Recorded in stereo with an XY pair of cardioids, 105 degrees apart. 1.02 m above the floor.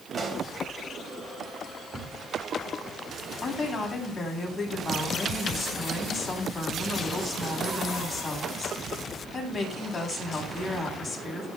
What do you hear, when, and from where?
0.1 s a pop: 30° right, 5 m
1.9 s a cupboard door: 5° left, 9 m
3.4 s a woman speaking: 20° left, 9 m